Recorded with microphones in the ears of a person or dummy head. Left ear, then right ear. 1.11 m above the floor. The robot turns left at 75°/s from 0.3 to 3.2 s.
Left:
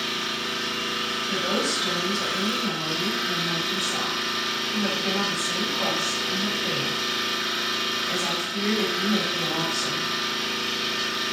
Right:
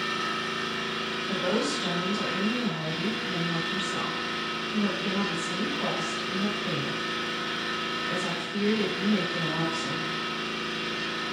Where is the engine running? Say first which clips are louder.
Left 2 dB; 105° right, 1.1 m; by 11.3 s 35° left, 1.1 m.